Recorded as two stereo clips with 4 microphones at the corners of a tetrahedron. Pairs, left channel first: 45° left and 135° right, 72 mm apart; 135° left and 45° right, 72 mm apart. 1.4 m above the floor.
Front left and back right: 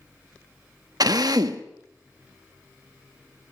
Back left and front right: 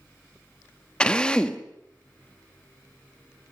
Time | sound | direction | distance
1.0 | a drill | 150° right | 1.3 m